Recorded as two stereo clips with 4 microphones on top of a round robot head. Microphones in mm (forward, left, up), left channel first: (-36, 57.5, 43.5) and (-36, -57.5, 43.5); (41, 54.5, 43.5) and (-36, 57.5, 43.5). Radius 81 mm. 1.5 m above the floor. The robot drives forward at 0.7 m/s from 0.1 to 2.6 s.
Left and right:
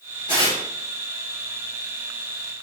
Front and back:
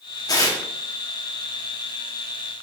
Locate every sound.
0.3 s tearing paper: 30° left, 2 m; by 0.6 s 35° left, 1.8 m